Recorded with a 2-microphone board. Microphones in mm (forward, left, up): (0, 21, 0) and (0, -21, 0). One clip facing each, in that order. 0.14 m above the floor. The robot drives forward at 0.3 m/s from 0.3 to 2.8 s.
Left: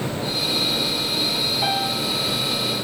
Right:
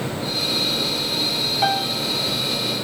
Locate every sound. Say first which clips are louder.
1.6 s a piano: right 4 dB; 55° right (ahead or behind), 4.5 m